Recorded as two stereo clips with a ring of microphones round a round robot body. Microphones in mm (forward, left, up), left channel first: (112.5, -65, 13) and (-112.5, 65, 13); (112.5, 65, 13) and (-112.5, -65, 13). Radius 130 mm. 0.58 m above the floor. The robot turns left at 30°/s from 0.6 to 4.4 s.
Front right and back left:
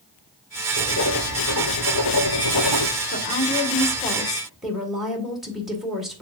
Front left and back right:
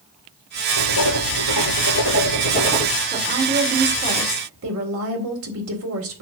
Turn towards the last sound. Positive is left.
turn(degrees=-120)